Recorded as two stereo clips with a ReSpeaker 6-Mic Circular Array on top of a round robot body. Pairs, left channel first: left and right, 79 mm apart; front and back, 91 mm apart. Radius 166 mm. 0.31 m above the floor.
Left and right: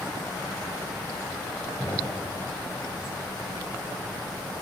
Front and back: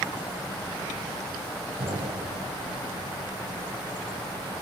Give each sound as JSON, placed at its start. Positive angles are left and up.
{"t": 1.8, "sound": "an explosion", "azimuth_deg": 160, "distance_m": 2.5}